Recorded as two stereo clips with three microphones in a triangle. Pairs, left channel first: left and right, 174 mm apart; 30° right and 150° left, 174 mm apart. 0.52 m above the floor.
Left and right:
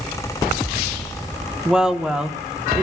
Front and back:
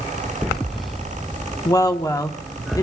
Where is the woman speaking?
10° right, 0.8 m.